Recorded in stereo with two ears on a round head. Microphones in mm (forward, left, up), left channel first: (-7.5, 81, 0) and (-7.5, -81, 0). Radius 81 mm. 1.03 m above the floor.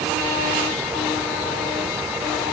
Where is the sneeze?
I don't hear a sneeze.